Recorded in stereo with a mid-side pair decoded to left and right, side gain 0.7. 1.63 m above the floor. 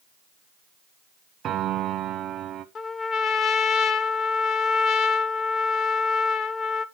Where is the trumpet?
35° left, 0.8 m.